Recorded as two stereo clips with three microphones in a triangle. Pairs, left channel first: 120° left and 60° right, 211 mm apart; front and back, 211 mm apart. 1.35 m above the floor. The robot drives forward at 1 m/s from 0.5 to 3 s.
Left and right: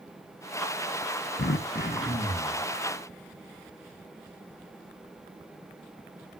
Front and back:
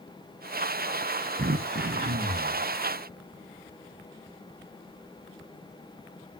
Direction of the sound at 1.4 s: 140° left.